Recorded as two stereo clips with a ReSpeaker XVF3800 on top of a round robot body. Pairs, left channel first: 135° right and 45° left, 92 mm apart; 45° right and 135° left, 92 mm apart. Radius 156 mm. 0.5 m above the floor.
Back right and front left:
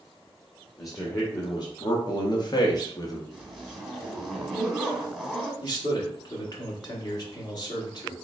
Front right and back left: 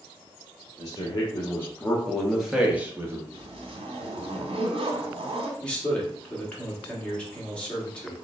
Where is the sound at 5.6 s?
120° right, 1.6 m.